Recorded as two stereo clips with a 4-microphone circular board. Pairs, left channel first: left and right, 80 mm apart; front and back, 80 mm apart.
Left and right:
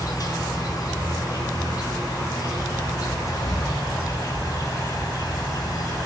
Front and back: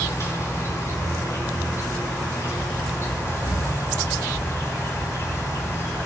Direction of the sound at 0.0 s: 55° left.